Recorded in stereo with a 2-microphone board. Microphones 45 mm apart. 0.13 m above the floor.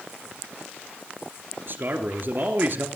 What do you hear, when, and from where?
1.7 s a man speaking: 50° right (ahead or behind), 2.5 m